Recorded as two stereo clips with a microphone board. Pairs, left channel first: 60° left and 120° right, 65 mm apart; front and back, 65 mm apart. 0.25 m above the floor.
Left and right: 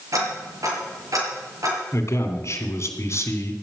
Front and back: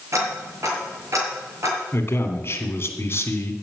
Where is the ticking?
145° right, 5.5 m.